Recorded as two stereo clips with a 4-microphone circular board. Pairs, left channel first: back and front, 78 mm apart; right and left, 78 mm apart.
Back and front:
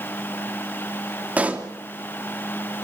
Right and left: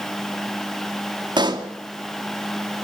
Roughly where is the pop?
Left.